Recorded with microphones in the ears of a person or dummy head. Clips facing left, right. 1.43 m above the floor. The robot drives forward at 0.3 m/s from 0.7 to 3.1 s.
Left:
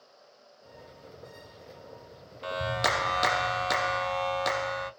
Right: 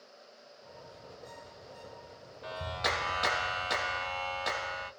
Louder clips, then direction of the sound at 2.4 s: Left 6 dB; 75° left (ahead or behind).